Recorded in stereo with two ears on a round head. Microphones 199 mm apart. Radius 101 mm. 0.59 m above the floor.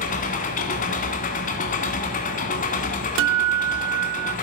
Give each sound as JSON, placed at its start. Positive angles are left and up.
{"t": 0.0, "sound": "an engine running", "side_deg": 40, "distance_m": 1.7}
{"t": 3.2, "sound": "a guitar", "side_deg": -65, "distance_m": 0.6}